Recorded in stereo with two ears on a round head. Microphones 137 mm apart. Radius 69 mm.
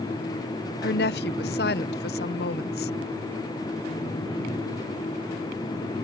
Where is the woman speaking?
70° left (ahead or behind).